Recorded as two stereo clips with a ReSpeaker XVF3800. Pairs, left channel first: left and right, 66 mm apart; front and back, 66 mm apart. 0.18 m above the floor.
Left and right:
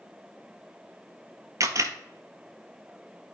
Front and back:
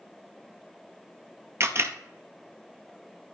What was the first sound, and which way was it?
A camera shutter, 130° right.